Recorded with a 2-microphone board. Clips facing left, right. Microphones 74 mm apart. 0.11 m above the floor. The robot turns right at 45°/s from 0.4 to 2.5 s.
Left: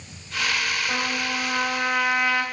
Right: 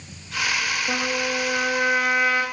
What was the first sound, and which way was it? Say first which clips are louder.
A trumpet: right 2 dB; 105° right.